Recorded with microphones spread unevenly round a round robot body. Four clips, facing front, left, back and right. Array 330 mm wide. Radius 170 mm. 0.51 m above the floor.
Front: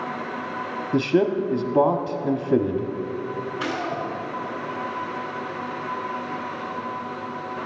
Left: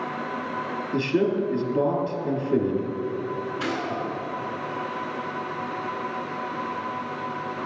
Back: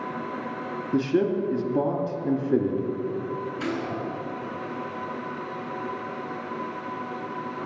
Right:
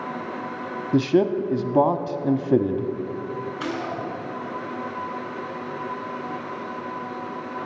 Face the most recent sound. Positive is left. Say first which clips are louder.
# even, front 3 dB
turn(degrees=165)